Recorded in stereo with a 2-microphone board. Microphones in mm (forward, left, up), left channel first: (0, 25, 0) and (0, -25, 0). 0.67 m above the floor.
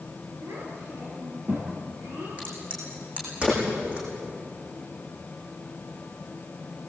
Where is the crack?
25° right (ahead or behind), 8.5 m.